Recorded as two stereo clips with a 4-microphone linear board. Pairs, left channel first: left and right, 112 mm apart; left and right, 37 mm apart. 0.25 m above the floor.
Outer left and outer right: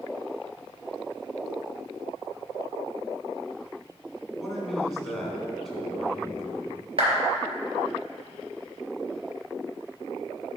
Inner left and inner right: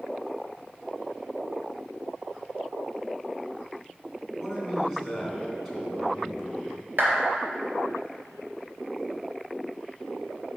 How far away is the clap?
About 3 m.